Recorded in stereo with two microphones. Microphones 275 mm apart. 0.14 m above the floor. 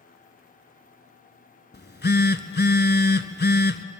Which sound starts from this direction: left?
A phone buzzing, at 1.7 s.